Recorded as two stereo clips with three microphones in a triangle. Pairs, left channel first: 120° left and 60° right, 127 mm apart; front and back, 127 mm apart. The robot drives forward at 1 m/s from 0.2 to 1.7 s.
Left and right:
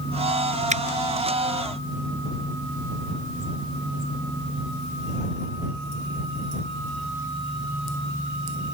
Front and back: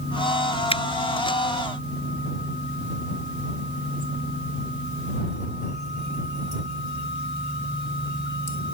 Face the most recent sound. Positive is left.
turn(degrees=-55)